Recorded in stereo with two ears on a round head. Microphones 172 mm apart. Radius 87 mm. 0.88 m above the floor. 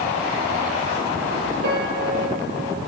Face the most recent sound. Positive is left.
turn(degrees=-65)  # may be behind; listen again after turning